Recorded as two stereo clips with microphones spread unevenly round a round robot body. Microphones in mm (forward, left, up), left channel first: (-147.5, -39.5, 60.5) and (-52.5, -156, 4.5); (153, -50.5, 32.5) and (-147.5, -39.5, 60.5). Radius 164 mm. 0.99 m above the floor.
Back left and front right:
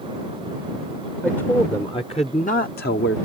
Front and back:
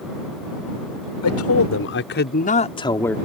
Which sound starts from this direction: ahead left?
A man speaking, at 1.2 s.